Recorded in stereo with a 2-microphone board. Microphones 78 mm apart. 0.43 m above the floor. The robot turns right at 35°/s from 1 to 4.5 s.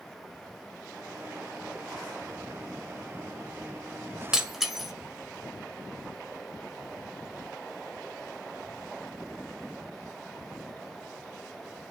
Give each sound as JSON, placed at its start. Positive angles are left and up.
{"t": 4.3, "sound": "breaking glass", "side_deg": -10, "distance_m": 1.0}